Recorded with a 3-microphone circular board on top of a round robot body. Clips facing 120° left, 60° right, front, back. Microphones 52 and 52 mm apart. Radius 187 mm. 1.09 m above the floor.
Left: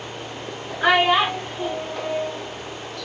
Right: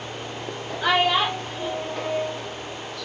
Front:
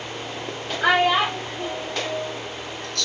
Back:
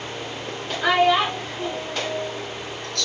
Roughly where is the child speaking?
Left.